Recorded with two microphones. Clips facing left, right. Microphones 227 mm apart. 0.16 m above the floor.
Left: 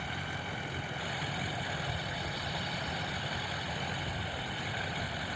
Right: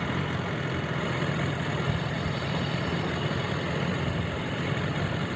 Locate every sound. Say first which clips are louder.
0.0 s a vehicle: right 11 dB; 75° right (ahead or behind)